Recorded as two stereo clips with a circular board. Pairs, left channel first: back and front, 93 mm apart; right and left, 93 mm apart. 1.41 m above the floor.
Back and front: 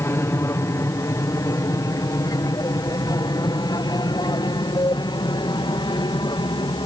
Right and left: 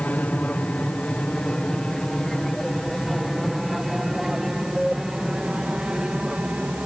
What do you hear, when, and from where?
0.0 s an aircraft: 150° right; by 6.9 s 170° left